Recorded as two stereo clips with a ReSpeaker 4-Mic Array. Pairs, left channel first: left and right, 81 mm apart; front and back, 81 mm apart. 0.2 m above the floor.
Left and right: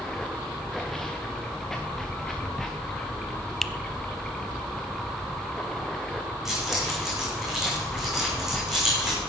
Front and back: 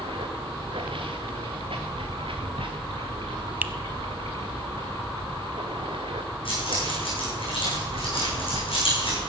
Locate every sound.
0.0 s running water: 175° left, 2 m
3.6 s a finger snap: 170° left, 0.8 m
6.5 s keys jangling: 5° right, 8 m